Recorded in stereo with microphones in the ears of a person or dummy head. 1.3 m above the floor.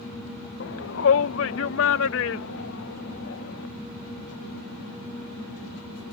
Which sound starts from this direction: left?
A shout, at 0.6 s.